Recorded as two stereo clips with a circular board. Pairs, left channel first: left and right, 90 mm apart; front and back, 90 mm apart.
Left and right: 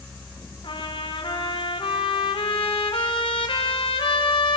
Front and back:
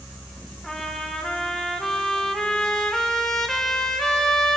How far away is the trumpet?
About 1.6 m.